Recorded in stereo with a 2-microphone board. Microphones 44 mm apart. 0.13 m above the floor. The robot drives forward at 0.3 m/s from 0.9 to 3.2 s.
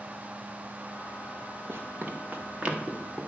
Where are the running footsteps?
65° right (ahead or behind), 1.8 m; by 3.3 s 10° right (ahead or behind), 3.5 m.